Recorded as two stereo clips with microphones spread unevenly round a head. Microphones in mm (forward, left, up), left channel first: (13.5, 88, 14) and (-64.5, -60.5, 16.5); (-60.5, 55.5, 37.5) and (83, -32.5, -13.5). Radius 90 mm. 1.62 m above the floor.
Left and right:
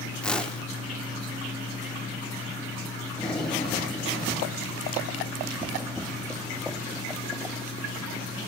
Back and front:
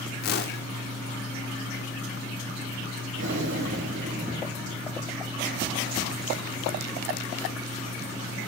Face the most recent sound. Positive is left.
turn(degrees=-25)